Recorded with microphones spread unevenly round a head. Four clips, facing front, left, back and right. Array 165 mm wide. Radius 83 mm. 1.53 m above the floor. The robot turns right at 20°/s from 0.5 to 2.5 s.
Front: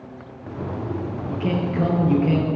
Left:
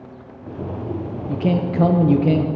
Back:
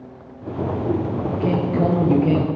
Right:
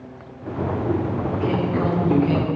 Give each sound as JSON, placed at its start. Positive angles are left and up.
{"t": 1.3, "sound": "a man speaking", "azimuth_deg": 95, "distance_m": 1.1}